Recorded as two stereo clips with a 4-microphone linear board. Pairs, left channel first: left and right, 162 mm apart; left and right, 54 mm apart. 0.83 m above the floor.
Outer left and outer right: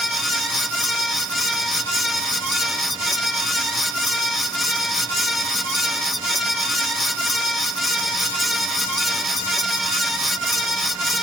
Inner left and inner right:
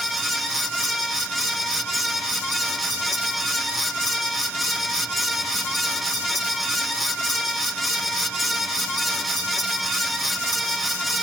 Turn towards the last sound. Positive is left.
No sound to turn to.